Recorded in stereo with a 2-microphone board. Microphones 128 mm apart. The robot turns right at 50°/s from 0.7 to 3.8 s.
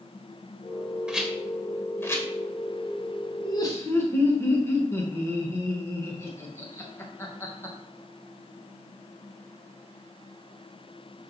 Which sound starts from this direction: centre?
A rattle, at 1.1 s.